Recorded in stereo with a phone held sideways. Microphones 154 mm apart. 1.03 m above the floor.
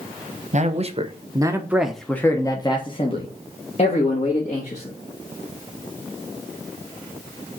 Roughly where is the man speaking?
Right.